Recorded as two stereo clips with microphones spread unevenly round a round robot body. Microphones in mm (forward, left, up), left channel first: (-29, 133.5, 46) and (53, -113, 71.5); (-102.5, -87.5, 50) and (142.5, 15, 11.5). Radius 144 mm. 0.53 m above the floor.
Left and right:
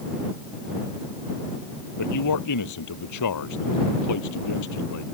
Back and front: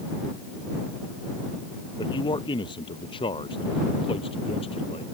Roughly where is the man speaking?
Behind left.